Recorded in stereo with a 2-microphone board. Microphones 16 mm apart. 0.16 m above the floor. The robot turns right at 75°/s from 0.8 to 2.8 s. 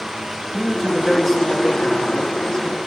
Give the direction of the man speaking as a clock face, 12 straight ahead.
1 o'clock.